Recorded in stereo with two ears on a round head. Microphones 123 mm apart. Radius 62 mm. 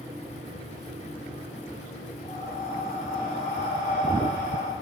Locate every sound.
2.2 s breathing: 55° left (ahead or behind), 2.5 m